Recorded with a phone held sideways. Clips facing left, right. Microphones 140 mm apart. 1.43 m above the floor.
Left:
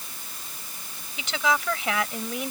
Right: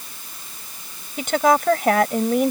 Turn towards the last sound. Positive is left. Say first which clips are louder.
# right 9 dB
turn(degrees=-50)  # may be behind; listen again after turning